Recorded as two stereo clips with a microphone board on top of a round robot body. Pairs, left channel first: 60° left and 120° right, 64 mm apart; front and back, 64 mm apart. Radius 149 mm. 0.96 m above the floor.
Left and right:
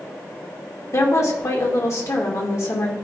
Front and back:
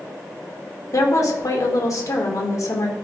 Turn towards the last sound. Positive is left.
turn(degrees=25)